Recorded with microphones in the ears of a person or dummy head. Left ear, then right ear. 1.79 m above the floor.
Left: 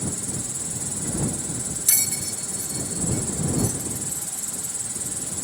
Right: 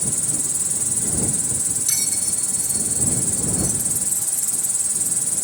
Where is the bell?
15° left (ahead or behind).